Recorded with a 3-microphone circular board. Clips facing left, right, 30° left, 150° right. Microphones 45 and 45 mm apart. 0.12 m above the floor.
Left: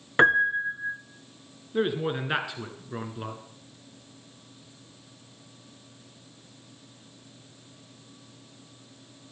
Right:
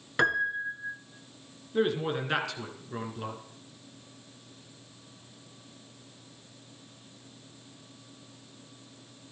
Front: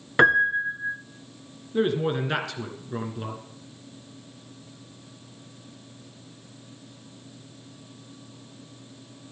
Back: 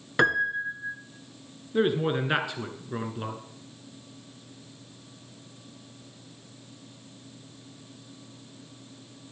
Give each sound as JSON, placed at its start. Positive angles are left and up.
{"t": 0.2, "sound": "a piano", "azimuth_deg": 70, "distance_m": 0.7}
{"t": 1.7, "sound": "a man speaking", "azimuth_deg": 155, "distance_m": 1.5}